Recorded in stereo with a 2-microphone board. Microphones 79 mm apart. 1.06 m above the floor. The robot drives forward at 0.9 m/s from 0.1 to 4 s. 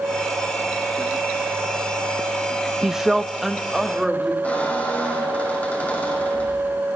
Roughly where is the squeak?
Centre.